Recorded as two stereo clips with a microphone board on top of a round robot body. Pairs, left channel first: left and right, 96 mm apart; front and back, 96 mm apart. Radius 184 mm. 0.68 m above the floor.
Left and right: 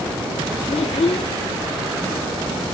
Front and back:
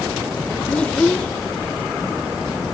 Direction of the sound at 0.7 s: 80° left.